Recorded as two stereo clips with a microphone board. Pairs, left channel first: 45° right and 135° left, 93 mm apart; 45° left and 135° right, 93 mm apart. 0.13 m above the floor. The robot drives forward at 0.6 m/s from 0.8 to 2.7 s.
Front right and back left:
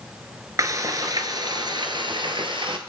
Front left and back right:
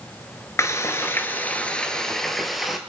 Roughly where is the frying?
Left.